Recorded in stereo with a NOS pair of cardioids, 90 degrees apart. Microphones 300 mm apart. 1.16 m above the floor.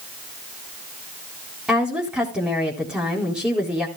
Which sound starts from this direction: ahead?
A woman speaking, at 1.7 s.